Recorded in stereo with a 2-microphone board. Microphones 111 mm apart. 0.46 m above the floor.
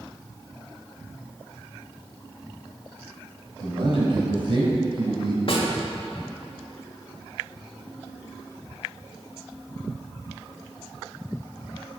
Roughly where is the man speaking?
Right.